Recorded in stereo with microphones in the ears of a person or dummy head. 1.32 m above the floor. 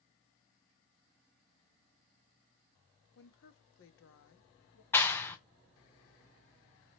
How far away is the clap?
About 0.6 m.